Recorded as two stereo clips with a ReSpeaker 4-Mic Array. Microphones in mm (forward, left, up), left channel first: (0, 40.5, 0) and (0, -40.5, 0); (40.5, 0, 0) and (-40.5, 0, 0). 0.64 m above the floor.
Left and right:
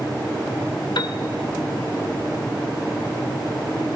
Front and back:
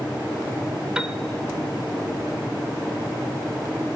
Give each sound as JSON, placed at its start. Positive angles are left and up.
{"t": 0.9, "sound": "a piano", "azimuth_deg": 100, "distance_m": 1.4}